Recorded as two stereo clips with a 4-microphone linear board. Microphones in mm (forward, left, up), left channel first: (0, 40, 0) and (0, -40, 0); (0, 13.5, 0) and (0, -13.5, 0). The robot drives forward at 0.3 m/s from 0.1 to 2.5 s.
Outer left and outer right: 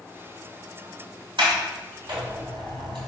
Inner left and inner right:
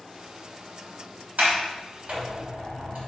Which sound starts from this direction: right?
A sliding door, at 1.4 s.